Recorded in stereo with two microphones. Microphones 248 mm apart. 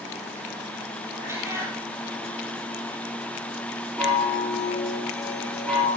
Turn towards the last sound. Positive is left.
turn(degrees=5)  # may be behind; listen again after turning